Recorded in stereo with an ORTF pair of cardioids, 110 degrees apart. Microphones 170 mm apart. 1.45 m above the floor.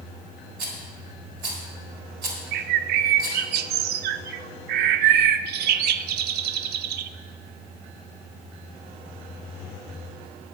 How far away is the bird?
About 0.5 m.